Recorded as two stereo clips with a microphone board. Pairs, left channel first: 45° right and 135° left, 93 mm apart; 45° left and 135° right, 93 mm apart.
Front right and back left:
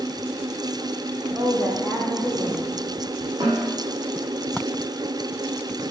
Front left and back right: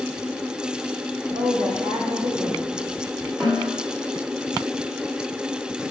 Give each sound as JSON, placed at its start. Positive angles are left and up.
{"t": 1.3, "sound": "a woman speaking", "azimuth_deg": -155, "distance_m": 5.5}
{"t": 3.4, "sound": "a snare drum", "azimuth_deg": 175, "distance_m": 7.0}